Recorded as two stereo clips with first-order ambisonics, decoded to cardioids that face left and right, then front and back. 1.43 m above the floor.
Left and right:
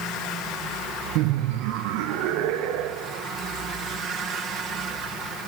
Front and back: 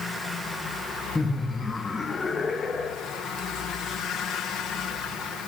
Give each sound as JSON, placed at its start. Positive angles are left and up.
{"t": 1.1, "sound": "laughter", "azimuth_deg": -85, "distance_m": 0.6}